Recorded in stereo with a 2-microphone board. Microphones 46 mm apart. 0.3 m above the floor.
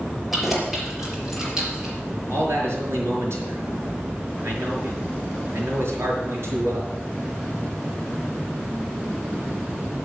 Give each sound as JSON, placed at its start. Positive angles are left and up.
{"t": 0.3, "sound": "keys jangling", "side_deg": -5, "distance_m": 5.0}
{"t": 2.3, "sound": "a man speaking", "side_deg": -70, "distance_m": 5.0}